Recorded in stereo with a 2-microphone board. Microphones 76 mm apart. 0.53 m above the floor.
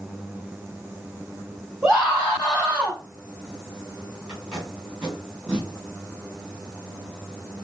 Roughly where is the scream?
Centre.